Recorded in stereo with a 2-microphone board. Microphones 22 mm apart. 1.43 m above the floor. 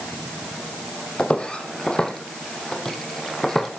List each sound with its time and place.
1.2 s footsteps: 50° left (ahead or behind), 3.5 m; by 3.7 s 15° left (ahead or behind), 3.5 m